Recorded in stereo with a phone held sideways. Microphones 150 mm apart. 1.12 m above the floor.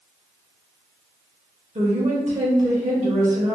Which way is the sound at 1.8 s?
50° right (ahead or behind).